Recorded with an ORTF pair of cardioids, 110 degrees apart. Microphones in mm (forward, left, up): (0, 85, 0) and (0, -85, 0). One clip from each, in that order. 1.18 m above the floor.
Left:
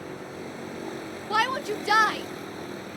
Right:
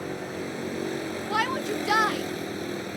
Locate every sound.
0.0 s a vehicle: 30° right
1.3 s a shout: 10° left